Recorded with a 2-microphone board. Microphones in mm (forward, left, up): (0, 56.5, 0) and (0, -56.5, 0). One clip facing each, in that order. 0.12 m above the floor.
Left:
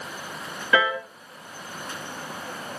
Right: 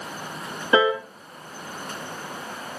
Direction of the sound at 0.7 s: 25° right (ahead or behind).